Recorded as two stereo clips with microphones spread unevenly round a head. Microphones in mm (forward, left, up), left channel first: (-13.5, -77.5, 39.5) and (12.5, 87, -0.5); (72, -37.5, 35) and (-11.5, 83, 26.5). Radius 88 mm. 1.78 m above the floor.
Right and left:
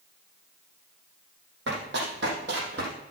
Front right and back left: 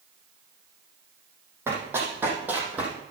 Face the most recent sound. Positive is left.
turn(degrees=45)